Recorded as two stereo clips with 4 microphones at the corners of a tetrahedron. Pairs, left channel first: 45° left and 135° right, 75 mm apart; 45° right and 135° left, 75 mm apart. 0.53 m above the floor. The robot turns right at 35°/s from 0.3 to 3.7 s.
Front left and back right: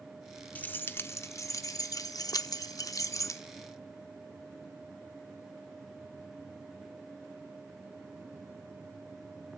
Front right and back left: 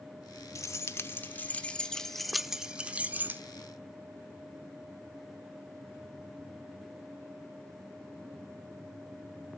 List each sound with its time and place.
0.6 s keys jangling: 15° right, 0.7 m; by 3.4 s 85° left, 0.7 m